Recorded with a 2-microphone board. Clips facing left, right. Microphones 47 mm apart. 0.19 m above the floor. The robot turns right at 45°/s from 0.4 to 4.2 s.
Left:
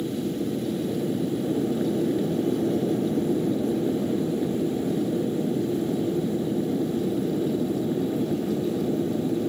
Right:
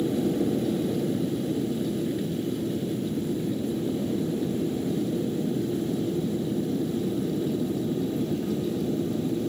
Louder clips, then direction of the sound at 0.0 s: Right 3 dB; 20° right.